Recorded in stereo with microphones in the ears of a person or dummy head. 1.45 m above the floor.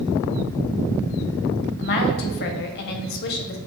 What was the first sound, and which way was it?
A woman speaking, 50° left (ahead or behind).